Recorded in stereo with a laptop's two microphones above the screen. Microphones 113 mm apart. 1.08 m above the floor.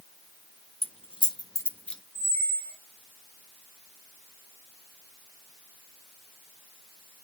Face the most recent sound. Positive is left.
turn(degrees=25)  # may be behind; listen again after turning